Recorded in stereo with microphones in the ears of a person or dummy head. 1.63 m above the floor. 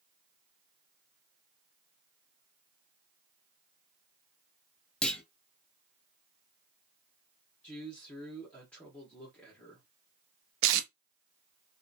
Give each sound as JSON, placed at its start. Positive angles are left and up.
{"t": 5.0, "sound": "a clunk", "side_deg": 5, "distance_m": 0.6}
{"t": 7.6, "sound": "a man speaking", "side_deg": 5, "distance_m": 1.0}
{"t": 10.6, "sound": "tape being pulled", "side_deg": -65, "distance_m": 0.5}